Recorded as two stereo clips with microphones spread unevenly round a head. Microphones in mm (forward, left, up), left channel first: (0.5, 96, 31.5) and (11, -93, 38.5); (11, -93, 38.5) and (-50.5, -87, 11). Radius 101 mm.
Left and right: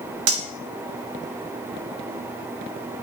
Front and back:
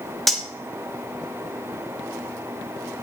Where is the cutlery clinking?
85° right, 1.5 m.